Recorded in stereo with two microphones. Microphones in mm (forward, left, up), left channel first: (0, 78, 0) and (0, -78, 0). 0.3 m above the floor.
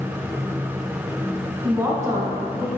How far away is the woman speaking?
About 3 m.